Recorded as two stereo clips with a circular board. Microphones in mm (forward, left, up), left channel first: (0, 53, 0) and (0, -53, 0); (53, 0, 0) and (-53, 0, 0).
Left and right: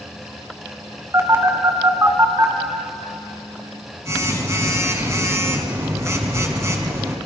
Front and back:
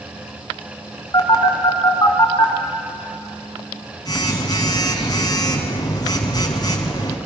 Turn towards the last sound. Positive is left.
turn(degrees=-35)